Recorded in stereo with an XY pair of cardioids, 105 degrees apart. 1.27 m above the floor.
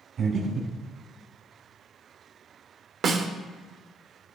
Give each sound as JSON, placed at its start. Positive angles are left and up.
{"t": 0.2, "sound": "breathing", "azimuth_deg": -60, "distance_m": 2.5}
{"t": 3.0, "sound": "a snare drum", "azimuth_deg": -55, "distance_m": 0.9}